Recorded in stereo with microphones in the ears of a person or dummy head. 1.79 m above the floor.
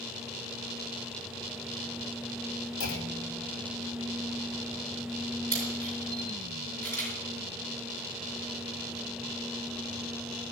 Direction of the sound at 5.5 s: 10° left (ahead or behind).